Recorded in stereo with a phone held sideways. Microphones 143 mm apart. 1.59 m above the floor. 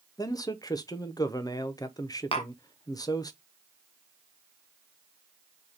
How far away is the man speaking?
About 0.6 m.